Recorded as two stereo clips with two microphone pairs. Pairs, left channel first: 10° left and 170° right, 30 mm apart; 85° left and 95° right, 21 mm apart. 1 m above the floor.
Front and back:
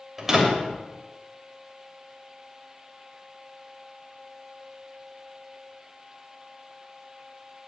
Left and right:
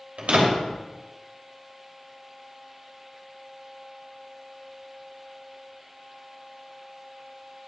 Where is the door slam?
95° right, 3 m.